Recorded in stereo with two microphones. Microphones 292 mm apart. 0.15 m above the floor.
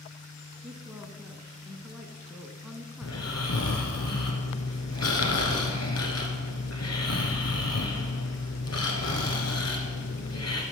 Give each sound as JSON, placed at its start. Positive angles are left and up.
{"t": 0.6, "sound": "a woman speaking", "side_deg": 0, "distance_m": 1.2}
{"t": 3.0, "sound": "snoring", "side_deg": 60, "distance_m": 1.4}